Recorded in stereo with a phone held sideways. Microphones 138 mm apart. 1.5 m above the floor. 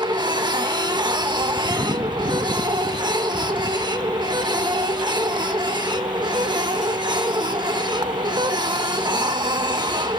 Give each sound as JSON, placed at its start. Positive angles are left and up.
{"t": 0.0, "sound": "a machine running", "side_deg": -30, "distance_m": 1.0}